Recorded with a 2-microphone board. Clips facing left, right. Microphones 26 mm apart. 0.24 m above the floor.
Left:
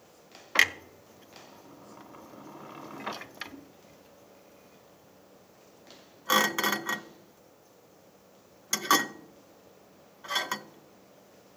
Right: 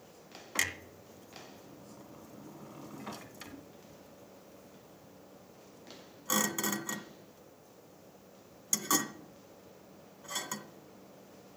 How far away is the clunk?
About 0.5 m.